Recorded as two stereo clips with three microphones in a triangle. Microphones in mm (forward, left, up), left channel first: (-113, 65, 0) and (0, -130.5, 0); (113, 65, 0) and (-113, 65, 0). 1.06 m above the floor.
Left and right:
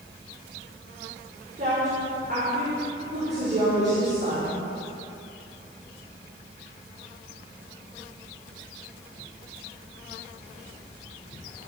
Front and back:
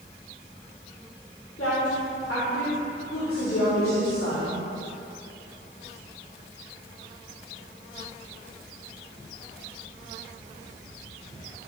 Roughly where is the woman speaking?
Ahead.